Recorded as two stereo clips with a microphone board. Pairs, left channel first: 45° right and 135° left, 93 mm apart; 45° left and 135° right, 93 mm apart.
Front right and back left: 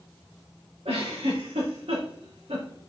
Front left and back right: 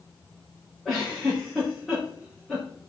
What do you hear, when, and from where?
0.8 s a giggle: 135° left, 5.5 m